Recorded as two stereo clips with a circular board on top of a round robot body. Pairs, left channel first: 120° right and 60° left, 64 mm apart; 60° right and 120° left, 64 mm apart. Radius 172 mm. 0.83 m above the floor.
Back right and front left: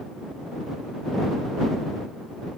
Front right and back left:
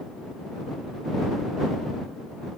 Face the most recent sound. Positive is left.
No sound to turn to.